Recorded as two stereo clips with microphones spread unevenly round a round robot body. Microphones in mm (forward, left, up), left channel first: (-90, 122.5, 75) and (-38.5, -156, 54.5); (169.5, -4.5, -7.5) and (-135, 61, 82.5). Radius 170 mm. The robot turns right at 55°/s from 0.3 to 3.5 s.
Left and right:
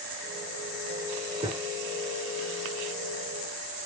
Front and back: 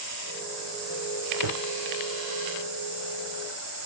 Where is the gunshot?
150° right, 5 m; by 1.6 s 140° right, 5 m.